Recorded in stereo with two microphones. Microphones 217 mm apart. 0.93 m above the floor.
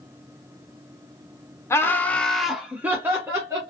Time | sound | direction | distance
1.7 | laughter | 10° left (ahead or behind) | 0.6 m